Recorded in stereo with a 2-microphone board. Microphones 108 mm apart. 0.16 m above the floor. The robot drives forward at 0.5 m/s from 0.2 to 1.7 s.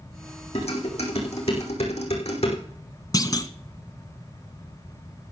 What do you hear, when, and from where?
0.6 s dishes clattering: 65° left (ahead or behind), 5.5 m; by 2.6 s 70° left (ahead or behind), 5.5 m
3.1 s a clunk: 35° left (ahead or behind), 1.0 m